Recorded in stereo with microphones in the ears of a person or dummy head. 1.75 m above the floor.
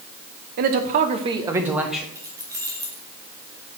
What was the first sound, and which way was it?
A man speaking, 50° right (ahead or behind).